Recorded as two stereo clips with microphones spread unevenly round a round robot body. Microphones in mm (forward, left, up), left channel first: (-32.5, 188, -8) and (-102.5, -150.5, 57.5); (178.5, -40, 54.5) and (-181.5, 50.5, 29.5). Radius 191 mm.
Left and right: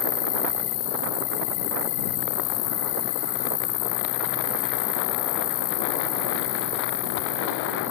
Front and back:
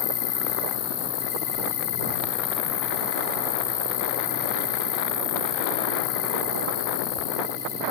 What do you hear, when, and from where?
0.0 s an insect: 50° left